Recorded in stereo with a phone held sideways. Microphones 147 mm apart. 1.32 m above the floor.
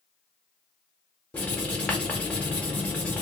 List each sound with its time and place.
1.3 s writing: 10° left (ahead or behind), 1.2 m